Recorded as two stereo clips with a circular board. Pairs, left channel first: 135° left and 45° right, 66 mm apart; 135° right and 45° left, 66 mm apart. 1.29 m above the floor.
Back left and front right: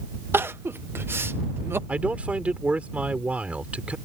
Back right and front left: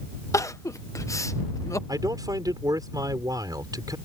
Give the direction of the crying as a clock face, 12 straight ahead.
3 o'clock.